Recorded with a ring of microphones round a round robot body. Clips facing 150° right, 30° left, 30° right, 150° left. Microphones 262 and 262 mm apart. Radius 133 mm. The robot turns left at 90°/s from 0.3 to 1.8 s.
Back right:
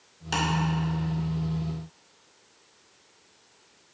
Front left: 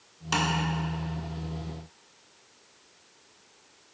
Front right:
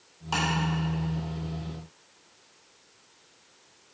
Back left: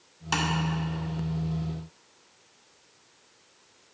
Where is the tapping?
105° left, 1.5 m; by 0.5 s 95° left, 1.5 m.